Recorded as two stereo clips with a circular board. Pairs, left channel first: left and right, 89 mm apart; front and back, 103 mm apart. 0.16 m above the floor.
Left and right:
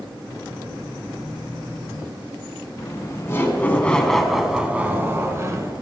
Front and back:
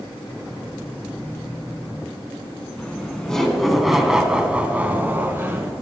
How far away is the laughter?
About 1.9 m.